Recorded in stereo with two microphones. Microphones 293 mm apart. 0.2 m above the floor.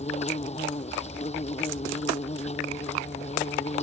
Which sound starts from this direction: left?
An insect, at 0.0 s.